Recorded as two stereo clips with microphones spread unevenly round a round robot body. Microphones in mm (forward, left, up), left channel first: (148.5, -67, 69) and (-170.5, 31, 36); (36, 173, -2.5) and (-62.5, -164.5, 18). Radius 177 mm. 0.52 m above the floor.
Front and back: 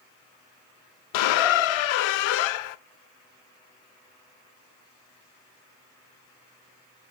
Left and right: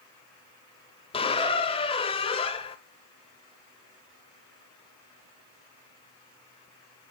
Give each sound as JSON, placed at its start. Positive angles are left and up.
{"t": 1.1, "sound": "a squeak", "azimuth_deg": -5, "distance_m": 0.5}